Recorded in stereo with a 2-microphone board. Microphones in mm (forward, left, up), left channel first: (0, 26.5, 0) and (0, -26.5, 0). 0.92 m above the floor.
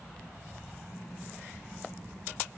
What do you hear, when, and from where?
Only background noise.